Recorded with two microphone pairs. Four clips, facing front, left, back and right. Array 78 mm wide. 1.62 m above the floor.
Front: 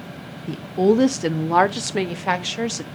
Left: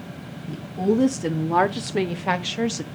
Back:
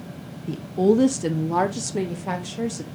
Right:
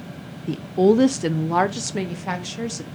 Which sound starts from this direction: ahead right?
A woman speaking, at 0.5 s.